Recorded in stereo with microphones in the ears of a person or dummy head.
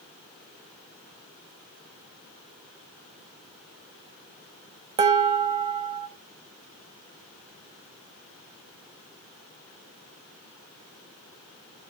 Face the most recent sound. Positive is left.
turn(degrees=-30)  # may be behind; listen again after turning